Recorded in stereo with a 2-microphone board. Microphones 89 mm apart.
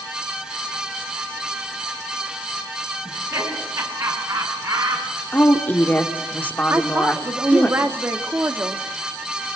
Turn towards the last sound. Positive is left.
turn(degrees=-25)  # may be behind; listen again after turning